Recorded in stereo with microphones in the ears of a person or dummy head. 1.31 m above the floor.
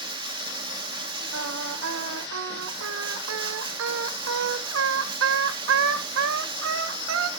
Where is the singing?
75° right (ahead or behind), 0.9 m.